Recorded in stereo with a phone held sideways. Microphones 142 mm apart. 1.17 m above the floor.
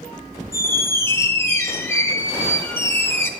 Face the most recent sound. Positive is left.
turn(degrees=15)  # may be behind; listen again after turning